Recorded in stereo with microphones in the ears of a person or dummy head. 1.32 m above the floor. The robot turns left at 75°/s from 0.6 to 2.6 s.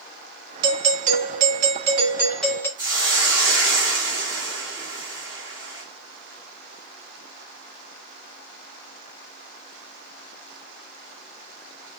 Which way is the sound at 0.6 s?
45° right.